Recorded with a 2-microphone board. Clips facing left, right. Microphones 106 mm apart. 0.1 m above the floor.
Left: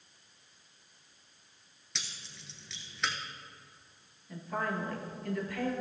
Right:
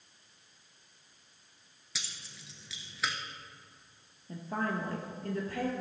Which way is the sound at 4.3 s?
35° right (ahead or behind).